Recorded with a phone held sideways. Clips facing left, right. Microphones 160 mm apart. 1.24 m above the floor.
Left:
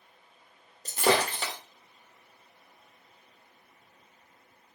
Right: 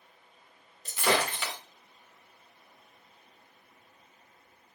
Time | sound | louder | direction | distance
0.8 | breaking glass | left 3 dB | 40° left (ahead or behind) | 1.7 m